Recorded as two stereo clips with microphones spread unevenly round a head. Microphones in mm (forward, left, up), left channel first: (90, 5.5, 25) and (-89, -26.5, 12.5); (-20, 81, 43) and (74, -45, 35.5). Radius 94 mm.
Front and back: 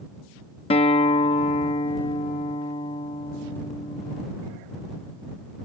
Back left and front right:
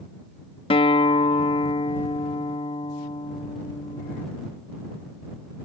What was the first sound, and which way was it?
A guitar, 70° left.